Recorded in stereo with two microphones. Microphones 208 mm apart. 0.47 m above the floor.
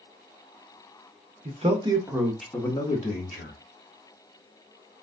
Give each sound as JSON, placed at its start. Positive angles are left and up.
{"t": 1.4, "sound": "a man speaking", "side_deg": -35, "distance_m": 0.9}